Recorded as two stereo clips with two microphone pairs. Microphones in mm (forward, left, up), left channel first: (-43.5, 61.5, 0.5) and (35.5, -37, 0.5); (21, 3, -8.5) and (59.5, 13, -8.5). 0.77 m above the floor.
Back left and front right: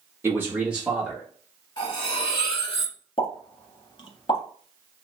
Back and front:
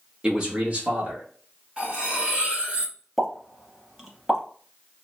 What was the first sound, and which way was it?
A man speaking, 10° right.